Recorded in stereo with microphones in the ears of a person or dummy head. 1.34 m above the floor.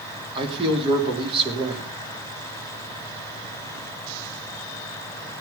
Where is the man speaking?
25° right (ahead or behind), 3 m.